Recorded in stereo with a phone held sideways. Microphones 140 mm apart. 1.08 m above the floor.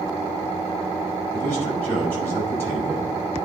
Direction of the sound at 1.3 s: 20° left (ahead or behind).